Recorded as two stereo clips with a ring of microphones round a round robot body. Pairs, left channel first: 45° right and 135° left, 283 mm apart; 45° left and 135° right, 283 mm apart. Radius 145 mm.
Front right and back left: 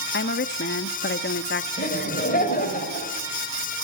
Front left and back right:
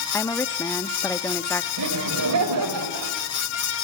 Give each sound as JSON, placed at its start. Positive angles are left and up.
{"t": 0.1, "sound": "a woman speaking", "azimuth_deg": -30, "distance_m": 0.7}
{"t": 1.8, "sound": "laughter", "azimuth_deg": -105, "distance_m": 3.0}